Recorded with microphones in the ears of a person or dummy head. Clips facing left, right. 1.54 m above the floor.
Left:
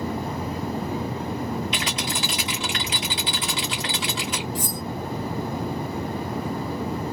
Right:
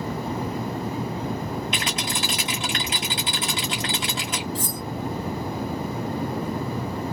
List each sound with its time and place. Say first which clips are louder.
1.7 s a rattle: even; 45° right (ahead or behind), 1.8 m
4.5 s cutlery clinking: even; 15° left (ahead or behind), 0.6 m